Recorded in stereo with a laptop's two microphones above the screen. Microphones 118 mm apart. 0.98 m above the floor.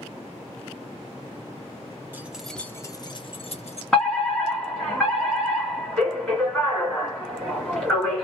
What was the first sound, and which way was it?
Keys jangling, 15° right (ahead or behind).